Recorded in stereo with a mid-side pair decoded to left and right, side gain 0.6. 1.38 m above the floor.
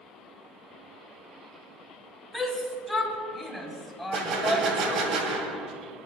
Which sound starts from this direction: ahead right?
A gunshot, at 4.1 s.